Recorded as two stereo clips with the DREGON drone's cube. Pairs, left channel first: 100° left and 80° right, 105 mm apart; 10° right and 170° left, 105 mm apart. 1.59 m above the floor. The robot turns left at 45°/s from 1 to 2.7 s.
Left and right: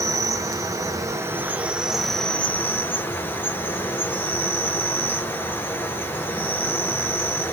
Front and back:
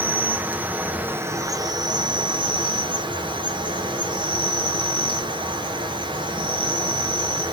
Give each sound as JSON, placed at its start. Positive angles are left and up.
{"t": 0.0, "sound": "an insect", "azimuth_deg": -120, "distance_m": 0.9}